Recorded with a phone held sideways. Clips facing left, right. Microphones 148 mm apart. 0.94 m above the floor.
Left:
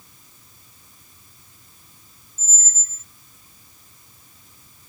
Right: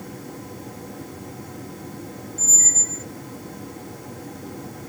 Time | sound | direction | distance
0.0 | a fan | 75° right (ahead or behind) | ?
2.4 | a squeak | 60° right (ahead or behind) | ?